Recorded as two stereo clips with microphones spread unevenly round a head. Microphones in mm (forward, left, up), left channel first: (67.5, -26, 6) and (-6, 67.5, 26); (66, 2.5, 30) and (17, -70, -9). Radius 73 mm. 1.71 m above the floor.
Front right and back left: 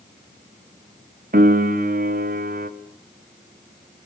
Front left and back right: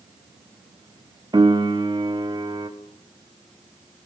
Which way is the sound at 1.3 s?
165° left.